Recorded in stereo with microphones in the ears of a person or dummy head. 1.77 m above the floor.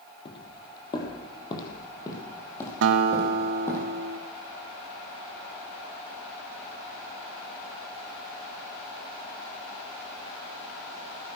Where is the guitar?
75° right (ahead or behind), 0.9 m.